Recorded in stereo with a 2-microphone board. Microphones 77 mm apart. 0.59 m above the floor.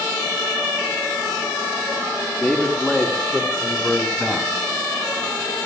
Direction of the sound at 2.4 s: 15° left (ahead or behind).